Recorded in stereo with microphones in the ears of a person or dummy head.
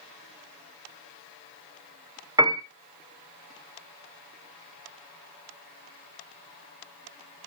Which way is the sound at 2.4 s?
15° right (ahead or behind).